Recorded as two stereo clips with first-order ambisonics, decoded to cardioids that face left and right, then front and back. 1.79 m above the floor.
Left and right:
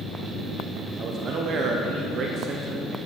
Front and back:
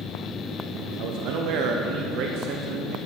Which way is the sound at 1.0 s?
145° right.